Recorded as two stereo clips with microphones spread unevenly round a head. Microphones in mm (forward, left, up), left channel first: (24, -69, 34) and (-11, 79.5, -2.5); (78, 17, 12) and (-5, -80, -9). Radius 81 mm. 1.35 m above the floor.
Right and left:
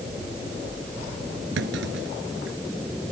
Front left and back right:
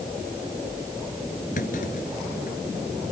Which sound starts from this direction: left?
A clunk, at 1.6 s.